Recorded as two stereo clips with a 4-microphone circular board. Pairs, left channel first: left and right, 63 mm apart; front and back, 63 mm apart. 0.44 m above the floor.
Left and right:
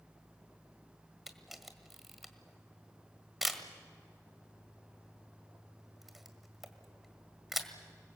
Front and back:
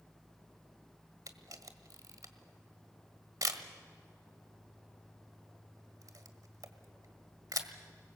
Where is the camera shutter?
175° right, 1.6 m.